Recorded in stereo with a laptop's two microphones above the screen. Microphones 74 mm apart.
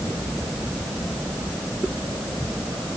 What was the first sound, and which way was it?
Only background noise.